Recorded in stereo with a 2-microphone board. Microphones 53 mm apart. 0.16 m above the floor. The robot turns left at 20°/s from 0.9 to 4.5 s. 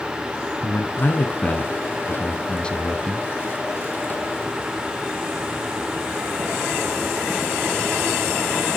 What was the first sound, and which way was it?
A man speaking, 60° left.